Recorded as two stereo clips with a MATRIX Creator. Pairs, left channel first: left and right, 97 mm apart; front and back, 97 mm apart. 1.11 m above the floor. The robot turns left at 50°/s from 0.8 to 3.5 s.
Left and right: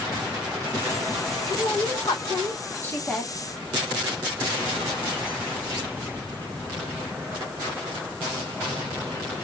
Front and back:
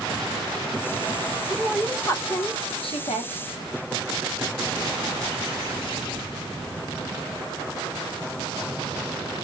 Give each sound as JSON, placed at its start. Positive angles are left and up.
{"t": 1.5, "sound": "a woman speaking", "azimuth_deg": 90, "distance_m": 0.9}